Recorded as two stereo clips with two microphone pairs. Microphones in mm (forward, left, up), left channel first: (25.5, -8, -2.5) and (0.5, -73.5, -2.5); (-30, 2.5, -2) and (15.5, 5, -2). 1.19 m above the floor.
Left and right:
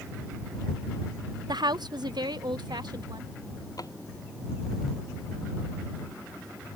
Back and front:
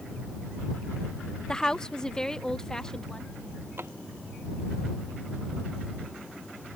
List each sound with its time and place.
1.5 s a woman speaking: 105° right; by 3.3 s 100° right
3.8 s a drawer: 35° left